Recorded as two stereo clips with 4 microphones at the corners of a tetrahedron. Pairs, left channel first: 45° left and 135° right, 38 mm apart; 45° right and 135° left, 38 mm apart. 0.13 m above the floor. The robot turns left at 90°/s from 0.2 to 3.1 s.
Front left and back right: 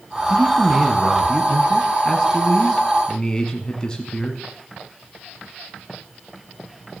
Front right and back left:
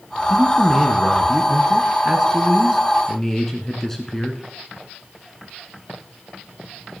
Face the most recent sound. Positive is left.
turn(degrees=15)